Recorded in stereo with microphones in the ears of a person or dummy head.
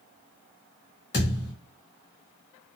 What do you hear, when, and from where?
1.1 s a thud: 20° left (ahead or behind), 1.2 m